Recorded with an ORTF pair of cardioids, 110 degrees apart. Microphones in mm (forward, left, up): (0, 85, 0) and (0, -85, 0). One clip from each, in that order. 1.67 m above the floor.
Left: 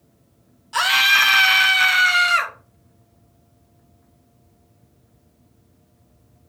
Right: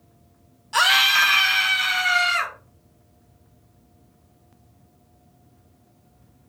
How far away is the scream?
About 0.9 m.